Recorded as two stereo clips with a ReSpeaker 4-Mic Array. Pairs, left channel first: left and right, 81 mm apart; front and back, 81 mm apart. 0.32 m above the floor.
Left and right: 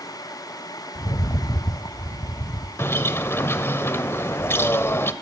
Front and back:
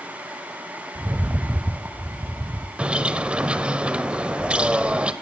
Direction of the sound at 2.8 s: 115° left.